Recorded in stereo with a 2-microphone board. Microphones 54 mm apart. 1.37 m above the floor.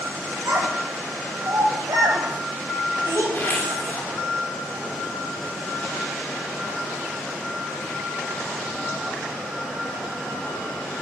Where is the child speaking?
80° right, 5 m.